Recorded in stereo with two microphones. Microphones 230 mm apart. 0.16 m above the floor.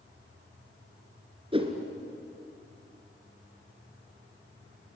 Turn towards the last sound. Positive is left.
turn(degrees=-25)  # may be behind; listen again after turning